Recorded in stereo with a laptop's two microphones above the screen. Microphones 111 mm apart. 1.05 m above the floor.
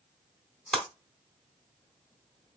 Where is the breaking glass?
5° left (ahead or behind), 1.0 m.